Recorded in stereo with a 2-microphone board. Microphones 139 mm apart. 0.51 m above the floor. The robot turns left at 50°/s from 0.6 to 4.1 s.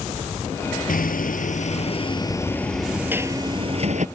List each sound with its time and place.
0.9 s hammering: 95° left; by 4.0 s 60° right